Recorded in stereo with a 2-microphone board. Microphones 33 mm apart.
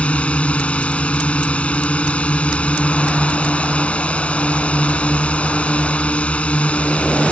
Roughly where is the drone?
Left.